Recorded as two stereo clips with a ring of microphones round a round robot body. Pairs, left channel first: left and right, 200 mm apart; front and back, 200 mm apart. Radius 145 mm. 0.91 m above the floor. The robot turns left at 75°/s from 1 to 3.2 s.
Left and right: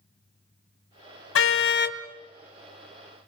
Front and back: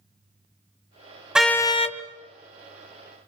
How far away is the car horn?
About 2.5 m.